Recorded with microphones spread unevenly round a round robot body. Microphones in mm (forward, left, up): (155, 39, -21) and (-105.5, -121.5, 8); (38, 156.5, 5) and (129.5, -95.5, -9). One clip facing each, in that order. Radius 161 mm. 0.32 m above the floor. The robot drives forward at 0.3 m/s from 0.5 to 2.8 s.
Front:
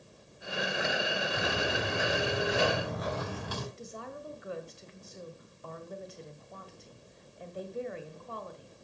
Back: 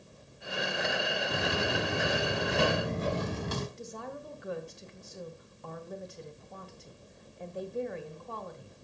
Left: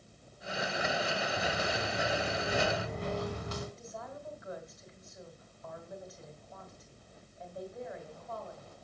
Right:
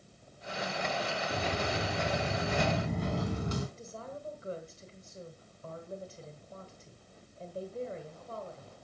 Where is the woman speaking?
120° right, 1.8 m.